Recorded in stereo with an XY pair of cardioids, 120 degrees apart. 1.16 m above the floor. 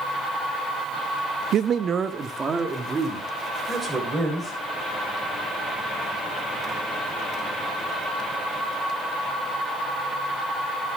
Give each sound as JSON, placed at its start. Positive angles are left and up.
{"t": 1.5, "sound": "a man speaking", "azimuth_deg": -60, "distance_m": 0.6}